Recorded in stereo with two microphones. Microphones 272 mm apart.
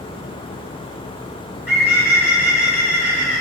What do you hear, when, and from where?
1.7 s a bird: 40° left (ahead or behind), 1.9 m